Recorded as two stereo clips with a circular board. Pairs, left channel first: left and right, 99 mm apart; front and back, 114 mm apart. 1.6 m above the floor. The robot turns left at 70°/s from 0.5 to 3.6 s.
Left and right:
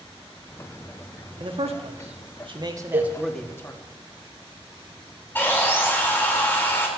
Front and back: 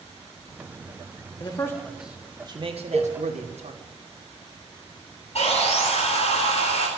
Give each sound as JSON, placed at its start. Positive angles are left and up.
{"t": 1.4, "sound": "a man speaking", "azimuth_deg": -50, "distance_m": 1.6}
{"t": 2.9, "sound": "a cowbell", "azimuth_deg": -75, "distance_m": 1.7}
{"t": 5.3, "sound": "sawing", "azimuth_deg": 20, "distance_m": 3.5}